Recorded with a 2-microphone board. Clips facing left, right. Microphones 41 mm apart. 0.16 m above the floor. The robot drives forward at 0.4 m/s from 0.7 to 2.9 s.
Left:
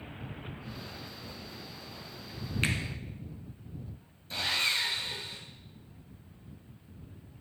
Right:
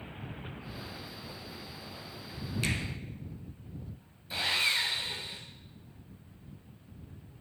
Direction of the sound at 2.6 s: 40° left (ahead or behind).